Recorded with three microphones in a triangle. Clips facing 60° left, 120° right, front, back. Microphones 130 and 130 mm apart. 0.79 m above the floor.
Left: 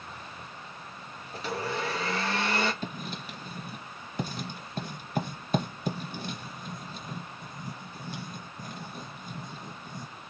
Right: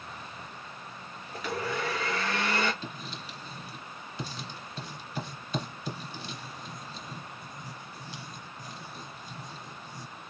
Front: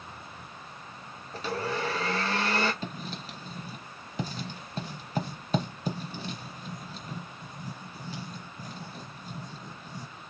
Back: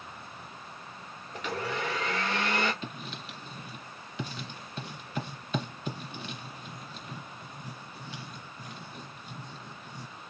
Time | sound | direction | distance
1.3 | a blender | 20° left | 1.1 m
2.8 | writing | 40° left | 0.9 m